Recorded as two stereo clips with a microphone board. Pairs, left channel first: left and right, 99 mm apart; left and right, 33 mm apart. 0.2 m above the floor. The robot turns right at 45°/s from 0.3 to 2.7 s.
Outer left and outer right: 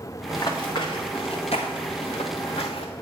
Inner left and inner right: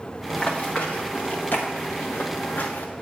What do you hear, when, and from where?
0.3 s running footsteps: 40° left (ahead or behind), 2 m; by 2.9 s 75° left (ahead or behind), 1.0 m